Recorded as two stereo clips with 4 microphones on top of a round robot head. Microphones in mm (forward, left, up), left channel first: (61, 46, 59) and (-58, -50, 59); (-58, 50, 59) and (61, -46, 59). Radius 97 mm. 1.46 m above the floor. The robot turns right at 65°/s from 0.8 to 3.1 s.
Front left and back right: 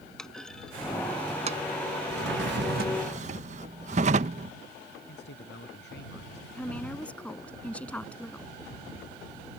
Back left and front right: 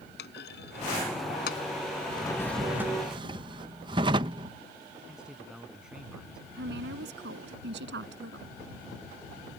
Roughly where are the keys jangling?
I don't hear keys jangling.